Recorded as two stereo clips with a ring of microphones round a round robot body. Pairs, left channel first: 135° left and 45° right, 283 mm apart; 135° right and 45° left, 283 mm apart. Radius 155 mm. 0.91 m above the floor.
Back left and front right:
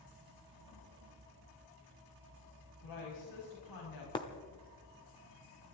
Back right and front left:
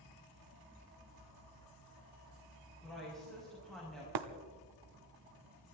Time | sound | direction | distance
2.8 | a woman speaking | 135° left | 5.5 m
4.2 | breaking glass | 60° left | 1.0 m